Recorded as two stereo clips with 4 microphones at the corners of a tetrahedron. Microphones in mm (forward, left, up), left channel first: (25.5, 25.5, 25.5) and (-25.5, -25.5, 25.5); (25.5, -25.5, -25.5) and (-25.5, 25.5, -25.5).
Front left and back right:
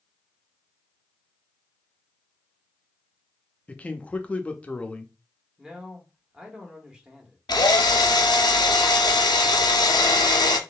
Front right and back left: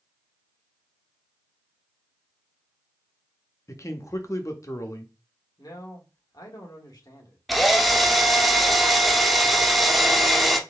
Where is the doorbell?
No doorbell in this recording.